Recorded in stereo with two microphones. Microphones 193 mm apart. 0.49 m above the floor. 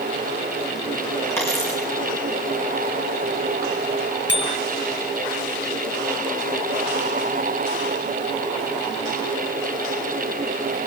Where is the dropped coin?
15° left (ahead or behind), 5 m.